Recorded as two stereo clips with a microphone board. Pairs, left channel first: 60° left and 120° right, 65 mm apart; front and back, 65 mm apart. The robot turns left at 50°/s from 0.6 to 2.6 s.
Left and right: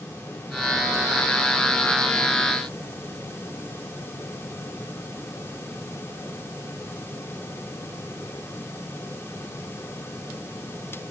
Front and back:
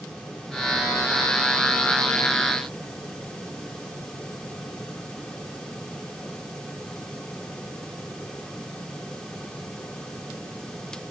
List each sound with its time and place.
Only background noise.